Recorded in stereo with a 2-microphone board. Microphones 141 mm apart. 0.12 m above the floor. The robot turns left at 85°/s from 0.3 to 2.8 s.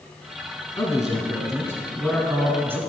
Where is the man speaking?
20° left (ahead or behind), 1.4 m; by 2.8 s 20° right (ahead or behind), 1.4 m.